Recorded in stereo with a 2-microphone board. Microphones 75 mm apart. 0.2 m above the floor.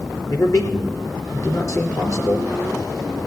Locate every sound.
0.3 s a man speaking: 45° left (ahead or behind), 4 m